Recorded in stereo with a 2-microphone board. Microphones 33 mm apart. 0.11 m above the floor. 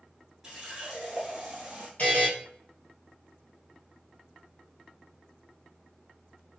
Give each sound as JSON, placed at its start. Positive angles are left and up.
{"t": 0.4, "sound": "a running tap", "side_deg": -15, "distance_m": 1.1}
{"t": 2.0, "sound": "a buzzer", "side_deg": 45, "distance_m": 1.3}